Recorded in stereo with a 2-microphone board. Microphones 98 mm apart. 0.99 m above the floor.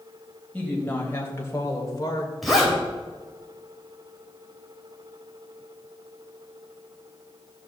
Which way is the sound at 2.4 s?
Centre (ahead or behind).